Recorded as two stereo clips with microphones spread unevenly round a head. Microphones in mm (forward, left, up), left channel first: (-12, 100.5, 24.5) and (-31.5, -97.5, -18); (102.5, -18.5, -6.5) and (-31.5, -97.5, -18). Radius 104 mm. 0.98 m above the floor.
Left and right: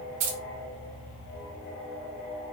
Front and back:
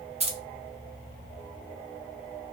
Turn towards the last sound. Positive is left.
turn(degrees=-100)